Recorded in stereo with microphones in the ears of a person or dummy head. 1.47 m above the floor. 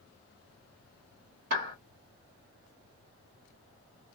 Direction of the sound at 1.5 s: 50° right (ahead or behind).